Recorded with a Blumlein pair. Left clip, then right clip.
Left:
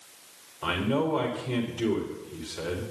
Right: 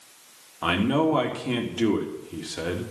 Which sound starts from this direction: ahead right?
A man speaking, at 0.6 s.